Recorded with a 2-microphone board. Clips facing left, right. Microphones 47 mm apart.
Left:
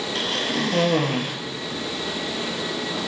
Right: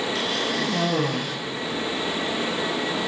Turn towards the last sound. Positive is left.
turn(degrees=45)  # may be behind; listen again after turning